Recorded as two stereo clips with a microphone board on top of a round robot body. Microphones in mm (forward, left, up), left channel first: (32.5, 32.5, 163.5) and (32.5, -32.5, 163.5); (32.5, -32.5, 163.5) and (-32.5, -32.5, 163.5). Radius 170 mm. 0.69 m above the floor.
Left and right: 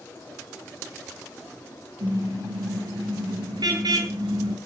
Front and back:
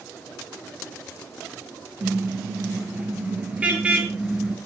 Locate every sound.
2.0 s a car horn: 115° right, 9.5 m; by 4.6 s 100° right, 6 m